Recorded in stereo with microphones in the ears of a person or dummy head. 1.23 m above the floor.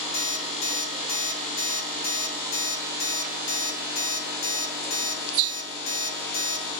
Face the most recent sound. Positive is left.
turn(degrees=60)  # may be behind; listen again after turning